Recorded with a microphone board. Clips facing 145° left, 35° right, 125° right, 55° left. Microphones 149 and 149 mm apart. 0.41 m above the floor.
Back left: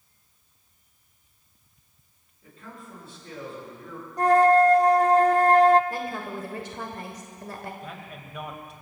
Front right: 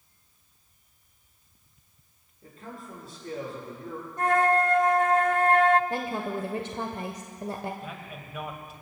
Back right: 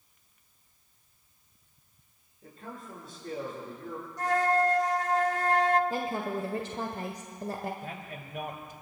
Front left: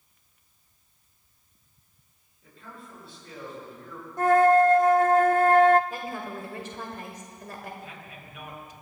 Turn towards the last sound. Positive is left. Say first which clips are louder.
# even, back right 3 dB
turn(degrees=-120)